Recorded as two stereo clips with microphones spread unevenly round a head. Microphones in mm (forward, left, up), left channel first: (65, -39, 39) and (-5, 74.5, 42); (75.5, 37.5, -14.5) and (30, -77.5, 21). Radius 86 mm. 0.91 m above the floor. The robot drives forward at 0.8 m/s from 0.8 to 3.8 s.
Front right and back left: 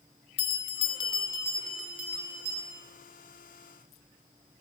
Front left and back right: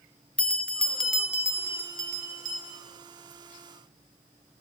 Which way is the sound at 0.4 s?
30° right.